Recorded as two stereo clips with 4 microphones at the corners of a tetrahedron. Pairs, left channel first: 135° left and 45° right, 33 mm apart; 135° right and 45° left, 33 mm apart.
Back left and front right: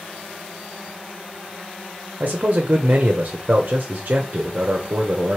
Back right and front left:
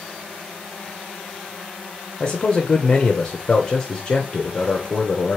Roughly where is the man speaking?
Right.